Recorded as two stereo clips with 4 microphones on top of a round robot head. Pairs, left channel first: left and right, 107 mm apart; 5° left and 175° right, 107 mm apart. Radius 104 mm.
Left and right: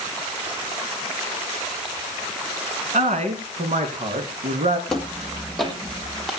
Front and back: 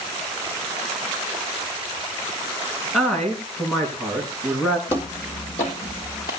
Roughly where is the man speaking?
Right.